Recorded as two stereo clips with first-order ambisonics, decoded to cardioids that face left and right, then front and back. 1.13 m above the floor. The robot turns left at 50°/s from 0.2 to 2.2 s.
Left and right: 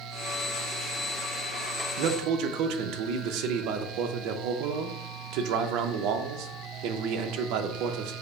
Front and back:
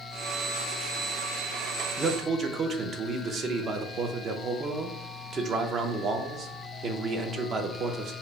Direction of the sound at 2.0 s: 105° right.